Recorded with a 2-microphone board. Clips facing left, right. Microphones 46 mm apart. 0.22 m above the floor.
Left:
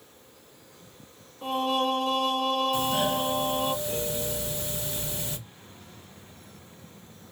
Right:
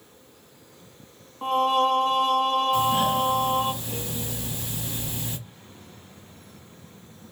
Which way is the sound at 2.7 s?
30° right (ahead or behind).